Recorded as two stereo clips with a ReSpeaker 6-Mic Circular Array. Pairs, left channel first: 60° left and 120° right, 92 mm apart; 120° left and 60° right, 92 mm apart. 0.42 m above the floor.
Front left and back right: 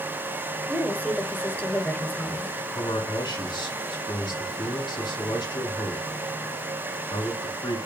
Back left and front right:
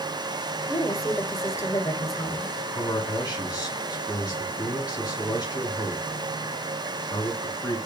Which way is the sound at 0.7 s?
115° left.